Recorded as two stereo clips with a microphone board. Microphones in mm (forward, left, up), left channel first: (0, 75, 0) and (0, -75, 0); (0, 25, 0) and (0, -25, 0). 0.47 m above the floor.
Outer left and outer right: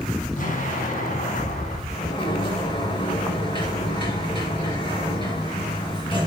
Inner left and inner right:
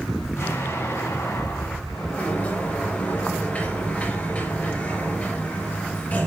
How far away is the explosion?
About 5 m.